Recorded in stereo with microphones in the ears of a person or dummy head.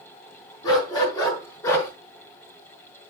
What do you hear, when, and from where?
0.6 s a dog barking: 20° left (ahead or behind), 5.5 m; by 1.9 s 15° left (ahead or behind), 6 m